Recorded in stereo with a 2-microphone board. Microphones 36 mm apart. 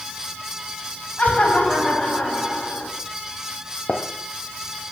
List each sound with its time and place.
1.2 s laughter: 35° left (ahead or behind), 7 m; by 2.9 s 25° left (ahead or behind), 7 m
3.9 s a gunshot: 50° left (ahead or behind), 1.1 m